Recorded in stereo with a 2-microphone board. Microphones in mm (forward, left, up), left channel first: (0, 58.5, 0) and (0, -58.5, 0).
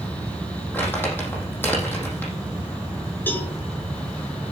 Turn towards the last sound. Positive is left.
turn(degrees=15)  # may be behind; listen again after turning